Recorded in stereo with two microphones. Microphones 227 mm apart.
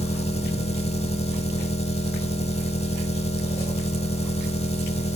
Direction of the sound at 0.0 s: 30° left (ahead or behind).